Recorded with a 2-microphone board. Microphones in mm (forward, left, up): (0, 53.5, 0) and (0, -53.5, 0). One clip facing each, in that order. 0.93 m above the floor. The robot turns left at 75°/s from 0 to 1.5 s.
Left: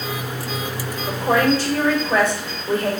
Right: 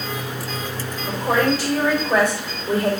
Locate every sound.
1.1 s a woman speaking: 20° left, 2.5 m; by 2.9 s 15° right, 2.5 m